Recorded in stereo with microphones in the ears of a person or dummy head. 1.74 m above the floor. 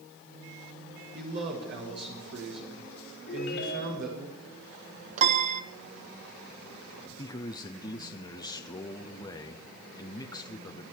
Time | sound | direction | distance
1.1 | a man speaking | 60° right (ahead or behind) | 5.5 m
3.3 | a ringtone | 75° left (ahead or behind) | 4 m
5.2 | a piano | 45° right (ahead or behind) | 1.0 m
7.2 | a man speaking | 25° left (ahead or behind) | 0.7 m